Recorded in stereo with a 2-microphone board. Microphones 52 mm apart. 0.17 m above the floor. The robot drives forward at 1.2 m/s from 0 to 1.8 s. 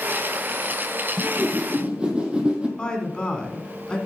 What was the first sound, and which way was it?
A whoosh, 45° right (ahead or behind).